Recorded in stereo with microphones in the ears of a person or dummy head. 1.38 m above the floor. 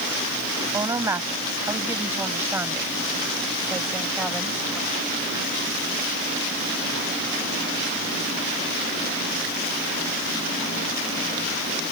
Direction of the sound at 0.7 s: 10° right (ahead or behind).